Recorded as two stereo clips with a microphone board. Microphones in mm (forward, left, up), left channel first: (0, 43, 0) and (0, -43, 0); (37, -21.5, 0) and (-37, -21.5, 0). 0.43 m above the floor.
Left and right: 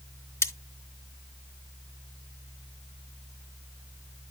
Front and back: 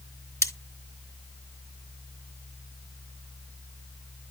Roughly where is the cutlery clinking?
Ahead left.